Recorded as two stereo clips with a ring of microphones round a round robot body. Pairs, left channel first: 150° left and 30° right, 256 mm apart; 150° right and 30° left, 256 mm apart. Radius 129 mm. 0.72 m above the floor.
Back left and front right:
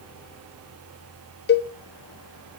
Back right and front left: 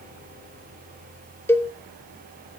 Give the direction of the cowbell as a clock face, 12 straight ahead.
8 o'clock.